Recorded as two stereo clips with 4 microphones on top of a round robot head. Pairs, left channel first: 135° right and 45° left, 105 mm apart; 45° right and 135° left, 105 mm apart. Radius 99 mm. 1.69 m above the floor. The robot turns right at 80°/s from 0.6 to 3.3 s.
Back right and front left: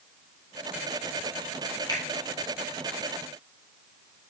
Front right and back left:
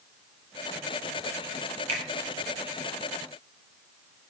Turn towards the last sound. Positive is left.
turn(degrees=-80)